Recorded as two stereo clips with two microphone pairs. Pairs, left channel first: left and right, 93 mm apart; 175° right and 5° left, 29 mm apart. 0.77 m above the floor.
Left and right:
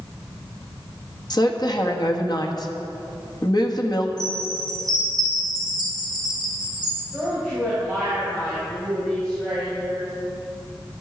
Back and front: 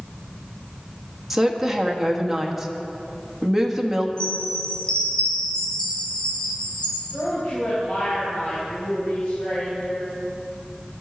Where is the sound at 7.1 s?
170° left, 4.5 m.